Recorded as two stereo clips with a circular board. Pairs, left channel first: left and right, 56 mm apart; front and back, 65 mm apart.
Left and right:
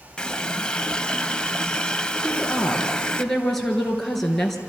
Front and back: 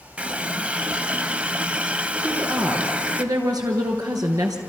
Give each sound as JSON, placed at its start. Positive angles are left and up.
{"t": 0.2, "sound": "a running tap", "azimuth_deg": 145, "distance_m": 0.7}
{"t": 2.2, "sound": "a woman speaking", "azimuth_deg": 175, "distance_m": 3.5}